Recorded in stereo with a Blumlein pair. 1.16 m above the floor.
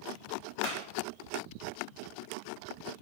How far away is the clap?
About 4 m.